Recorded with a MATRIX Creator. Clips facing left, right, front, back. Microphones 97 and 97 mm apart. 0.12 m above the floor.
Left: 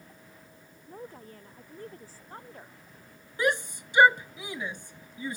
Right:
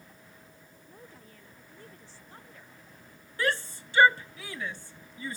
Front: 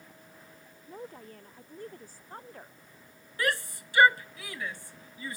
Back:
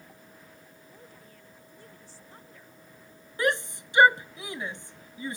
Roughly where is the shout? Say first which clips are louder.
Left 3 dB, back 4 dB; behind left.